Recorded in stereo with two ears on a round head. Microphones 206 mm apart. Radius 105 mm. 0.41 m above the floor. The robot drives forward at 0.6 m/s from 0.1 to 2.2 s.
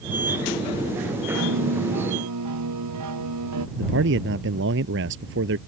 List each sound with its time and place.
1.3 s a piano: 80° right
3.8 s a man speaking: 50° right (ahead or behind)